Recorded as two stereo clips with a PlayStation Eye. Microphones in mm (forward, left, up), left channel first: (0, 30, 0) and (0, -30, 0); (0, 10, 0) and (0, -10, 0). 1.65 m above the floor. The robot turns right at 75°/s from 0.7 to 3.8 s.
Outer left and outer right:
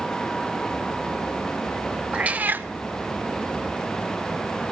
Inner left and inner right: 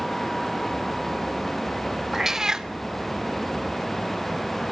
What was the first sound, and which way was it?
A cat meowing, 145° right.